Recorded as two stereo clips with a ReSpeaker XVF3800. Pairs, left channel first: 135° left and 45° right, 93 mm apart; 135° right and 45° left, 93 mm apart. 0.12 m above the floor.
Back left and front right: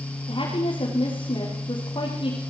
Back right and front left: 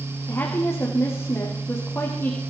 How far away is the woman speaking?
About 6.5 m.